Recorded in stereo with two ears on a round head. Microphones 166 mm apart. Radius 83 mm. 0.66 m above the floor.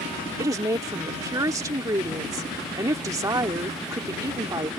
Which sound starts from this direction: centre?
A woman speaking, at 0.4 s.